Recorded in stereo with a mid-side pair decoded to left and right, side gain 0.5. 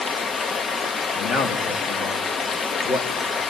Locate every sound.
0.0 s running water: 45° left, 0.9 m
1.1 s a man speaking: 60° left, 2 m